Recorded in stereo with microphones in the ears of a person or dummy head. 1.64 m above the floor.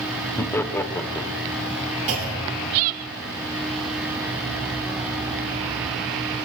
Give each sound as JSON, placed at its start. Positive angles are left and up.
{"t": 0.4, "sound": "laughter", "side_deg": 10, "distance_m": 0.7}
{"t": 2.1, "sound": "a clunk", "side_deg": -50, "distance_m": 3.5}